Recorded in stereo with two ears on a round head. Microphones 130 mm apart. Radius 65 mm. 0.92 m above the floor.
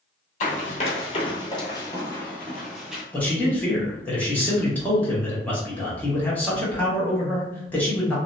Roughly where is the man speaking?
Centre.